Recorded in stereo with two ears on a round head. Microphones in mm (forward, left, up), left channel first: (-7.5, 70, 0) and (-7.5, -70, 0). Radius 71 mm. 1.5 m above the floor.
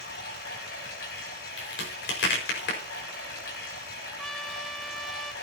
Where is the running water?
75° left (ahead or behind), 4.5 m.